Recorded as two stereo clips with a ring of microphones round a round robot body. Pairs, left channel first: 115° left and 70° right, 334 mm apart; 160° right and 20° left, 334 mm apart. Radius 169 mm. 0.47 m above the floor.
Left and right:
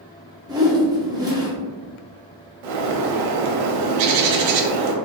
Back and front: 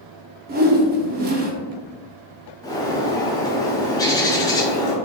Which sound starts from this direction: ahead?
A whoosh, at 0.5 s.